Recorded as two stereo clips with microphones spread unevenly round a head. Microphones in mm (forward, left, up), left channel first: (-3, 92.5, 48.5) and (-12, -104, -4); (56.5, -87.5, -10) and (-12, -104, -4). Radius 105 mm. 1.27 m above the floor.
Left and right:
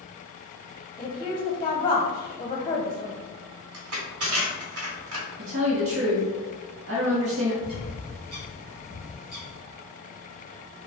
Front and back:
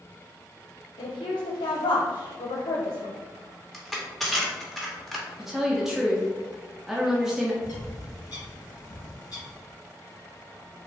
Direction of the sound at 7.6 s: 10° right.